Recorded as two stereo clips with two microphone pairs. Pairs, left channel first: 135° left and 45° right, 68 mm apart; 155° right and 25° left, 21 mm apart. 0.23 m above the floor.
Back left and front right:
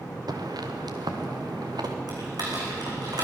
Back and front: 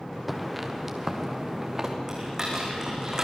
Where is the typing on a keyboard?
35° right, 6.5 m.